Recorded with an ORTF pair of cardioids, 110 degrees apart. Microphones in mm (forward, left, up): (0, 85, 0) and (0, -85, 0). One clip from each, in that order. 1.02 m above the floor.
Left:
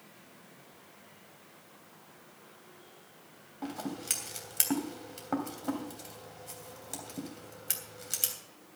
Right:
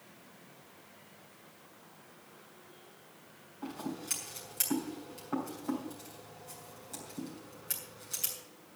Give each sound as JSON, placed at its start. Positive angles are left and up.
{"t": 3.6, "sound": "scissors", "azimuth_deg": 50, "distance_m": 3.0}